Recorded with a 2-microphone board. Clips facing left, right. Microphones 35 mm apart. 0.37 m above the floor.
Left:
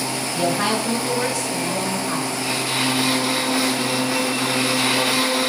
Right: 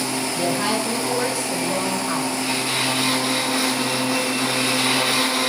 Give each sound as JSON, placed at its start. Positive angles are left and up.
{"t": 0.3, "sound": "a woman speaking", "side_deg": 40, "distance_m": 1.5}